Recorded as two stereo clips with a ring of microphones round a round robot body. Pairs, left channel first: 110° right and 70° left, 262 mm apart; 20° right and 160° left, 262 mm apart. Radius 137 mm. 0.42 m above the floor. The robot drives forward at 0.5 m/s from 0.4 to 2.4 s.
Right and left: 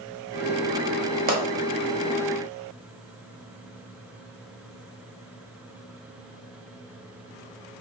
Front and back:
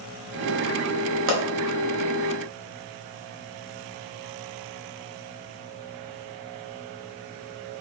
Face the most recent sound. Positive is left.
turn(degrees=145)